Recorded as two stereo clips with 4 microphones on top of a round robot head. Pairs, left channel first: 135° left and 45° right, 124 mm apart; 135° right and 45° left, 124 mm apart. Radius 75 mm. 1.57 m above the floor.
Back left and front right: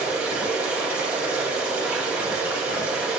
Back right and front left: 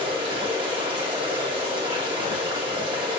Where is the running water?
25° left, 1.3 m.